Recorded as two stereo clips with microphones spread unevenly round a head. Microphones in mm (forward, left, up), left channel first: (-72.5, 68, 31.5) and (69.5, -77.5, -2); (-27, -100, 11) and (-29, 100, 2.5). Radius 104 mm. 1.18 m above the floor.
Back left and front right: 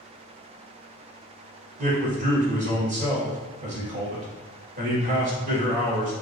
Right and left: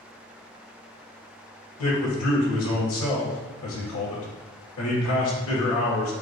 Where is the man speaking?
100° right, 1.9 m.